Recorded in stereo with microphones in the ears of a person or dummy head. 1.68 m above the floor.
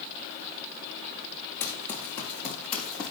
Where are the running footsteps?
15° left (ahead or behind), 7 m; by 3.1 s 5° left (ahead or behind), 5 m.